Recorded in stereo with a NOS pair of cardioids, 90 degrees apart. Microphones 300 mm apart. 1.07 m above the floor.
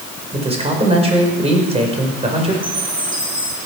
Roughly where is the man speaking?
Ahead.